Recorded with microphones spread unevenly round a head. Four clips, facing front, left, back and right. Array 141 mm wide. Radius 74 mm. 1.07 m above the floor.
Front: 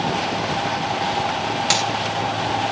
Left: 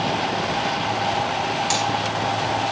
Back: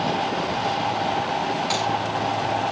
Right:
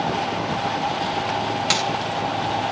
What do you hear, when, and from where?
1.7 s a dropped coin: 30° right, 3 m